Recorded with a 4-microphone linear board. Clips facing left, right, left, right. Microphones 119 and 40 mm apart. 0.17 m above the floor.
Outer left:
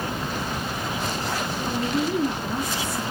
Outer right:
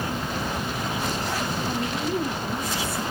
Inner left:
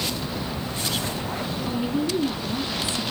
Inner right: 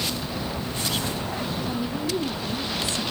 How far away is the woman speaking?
About 4 m.